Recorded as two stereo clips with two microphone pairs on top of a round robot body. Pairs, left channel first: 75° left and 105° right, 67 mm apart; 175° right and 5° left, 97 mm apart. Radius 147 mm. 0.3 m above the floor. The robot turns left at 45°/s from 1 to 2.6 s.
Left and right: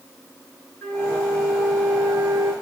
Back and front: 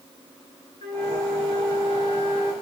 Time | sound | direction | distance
0.8 | a flute | 10° left | 5.5 m